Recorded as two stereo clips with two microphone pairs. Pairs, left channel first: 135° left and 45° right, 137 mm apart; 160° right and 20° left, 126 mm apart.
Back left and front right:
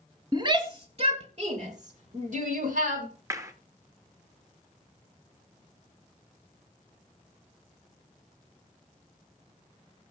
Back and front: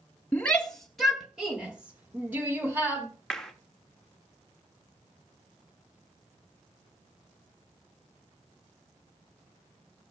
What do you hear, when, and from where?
0.3 s a shout: 85° right, 1.8 m; by 3.1 s 50° right, 3.5 m
3.3 s a clap: 75° right, 1.1 m